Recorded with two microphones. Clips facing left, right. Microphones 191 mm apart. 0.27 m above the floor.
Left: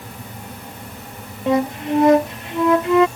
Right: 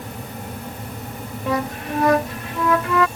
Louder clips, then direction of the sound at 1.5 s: Left 6 dB; 25° left (ahead or behind).